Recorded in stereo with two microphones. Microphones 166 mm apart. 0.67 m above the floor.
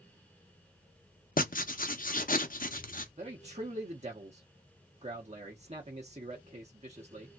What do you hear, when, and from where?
1.4 s writing: 55° left (ahead or behind), 0.6 m
3.2 s a man speaking: 40° right (ahead or behind), 0.9 m